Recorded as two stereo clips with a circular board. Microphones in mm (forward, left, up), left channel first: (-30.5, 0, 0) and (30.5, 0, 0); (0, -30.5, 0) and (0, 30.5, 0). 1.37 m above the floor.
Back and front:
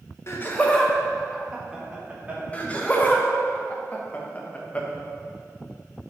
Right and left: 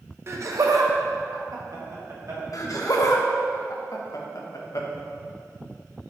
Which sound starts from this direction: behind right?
Laughter, at 2.5 s.